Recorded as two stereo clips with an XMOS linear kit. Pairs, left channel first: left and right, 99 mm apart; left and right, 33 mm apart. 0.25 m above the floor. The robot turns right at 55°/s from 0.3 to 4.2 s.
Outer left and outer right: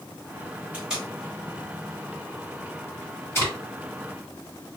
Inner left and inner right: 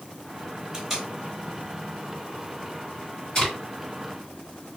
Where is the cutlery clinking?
I don't hear cutlery clinking.